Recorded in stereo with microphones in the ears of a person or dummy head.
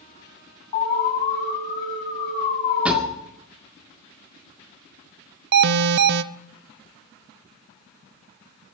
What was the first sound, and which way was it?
An alarm, 45° left (ahead or behind).